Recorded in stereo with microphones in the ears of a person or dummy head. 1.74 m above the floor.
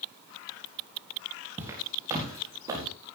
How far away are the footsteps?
About 4 m.